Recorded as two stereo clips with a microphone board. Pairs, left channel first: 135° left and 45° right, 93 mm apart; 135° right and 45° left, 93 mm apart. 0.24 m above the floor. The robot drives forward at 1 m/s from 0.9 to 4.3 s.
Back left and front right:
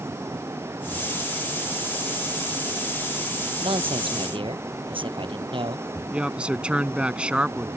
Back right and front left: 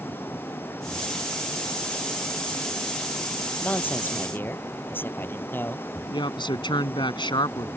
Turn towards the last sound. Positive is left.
turn(degrees=-120)